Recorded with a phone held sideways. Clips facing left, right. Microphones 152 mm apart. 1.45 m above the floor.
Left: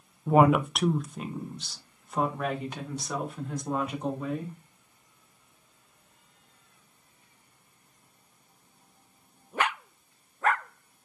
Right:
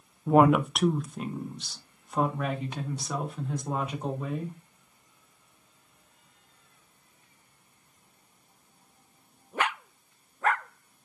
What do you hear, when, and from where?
0.3 s a woman speaking: centre (ahead or behind), 0.7 m